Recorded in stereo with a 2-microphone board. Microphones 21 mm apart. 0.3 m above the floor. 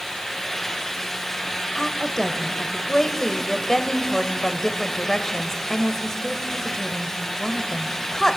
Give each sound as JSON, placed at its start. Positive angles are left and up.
{"t": 1.8, "sound": "a woman speaking", "side_deg": 20, "distance_m": 1.1}